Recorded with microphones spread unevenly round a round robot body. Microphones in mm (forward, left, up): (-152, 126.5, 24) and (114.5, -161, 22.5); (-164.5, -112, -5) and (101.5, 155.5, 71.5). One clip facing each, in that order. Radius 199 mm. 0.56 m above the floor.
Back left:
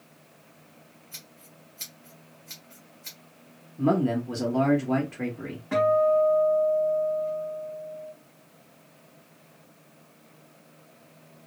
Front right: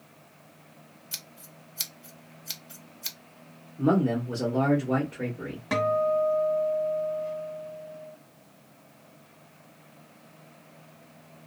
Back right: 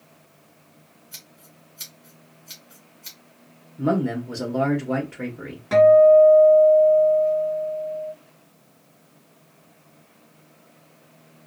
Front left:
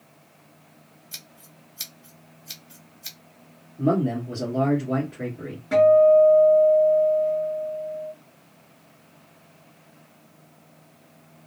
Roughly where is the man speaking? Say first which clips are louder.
Even, even; behind.